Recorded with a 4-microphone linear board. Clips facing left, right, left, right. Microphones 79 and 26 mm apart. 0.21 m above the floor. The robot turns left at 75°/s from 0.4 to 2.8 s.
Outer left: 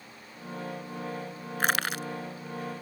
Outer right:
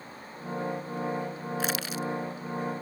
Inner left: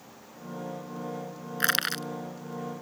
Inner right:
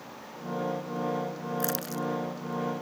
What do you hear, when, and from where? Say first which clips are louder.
1.6 s crushing: outer left 5 dB, inner left 7 dB; 50° left (ahead or behind); by 2.1 s 65° left (ahead or behind)